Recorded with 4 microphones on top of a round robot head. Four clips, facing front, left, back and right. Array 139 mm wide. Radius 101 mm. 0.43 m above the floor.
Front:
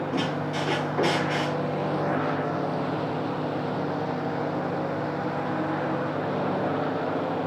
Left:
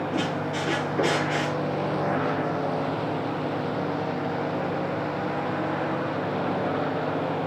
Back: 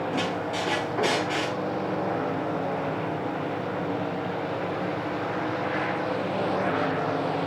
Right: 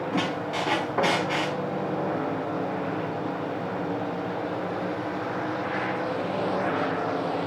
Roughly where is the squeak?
Right.